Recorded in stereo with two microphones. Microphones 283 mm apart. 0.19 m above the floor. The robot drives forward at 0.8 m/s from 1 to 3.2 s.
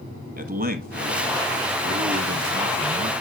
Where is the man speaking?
30° right (ahead or behind), 1.3 m; by 3.1 s 20° right (ahead or behind), 1.8 m.